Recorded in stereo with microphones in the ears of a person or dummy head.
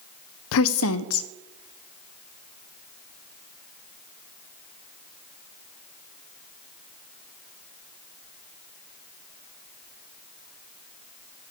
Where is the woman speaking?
75° left (ahead or behind), 0.6 m.